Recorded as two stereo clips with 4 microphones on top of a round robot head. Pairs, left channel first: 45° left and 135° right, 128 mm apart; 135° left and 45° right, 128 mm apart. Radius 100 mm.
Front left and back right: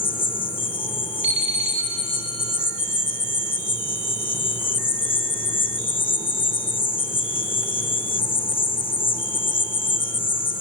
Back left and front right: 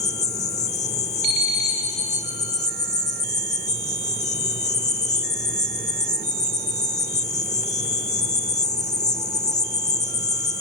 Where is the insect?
95° left, 0.8 m.